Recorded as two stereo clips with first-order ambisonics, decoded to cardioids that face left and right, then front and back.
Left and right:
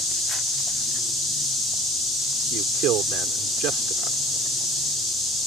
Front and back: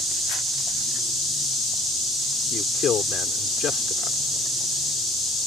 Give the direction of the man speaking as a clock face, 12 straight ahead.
2 o'clock.